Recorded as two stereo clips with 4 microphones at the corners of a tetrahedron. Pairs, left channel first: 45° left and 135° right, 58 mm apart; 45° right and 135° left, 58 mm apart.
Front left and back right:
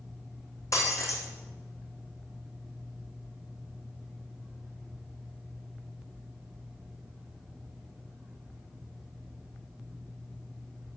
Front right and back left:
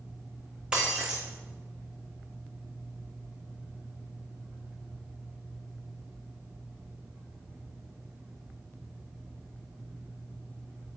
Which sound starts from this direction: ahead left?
Breaking glass, at 0.7 s.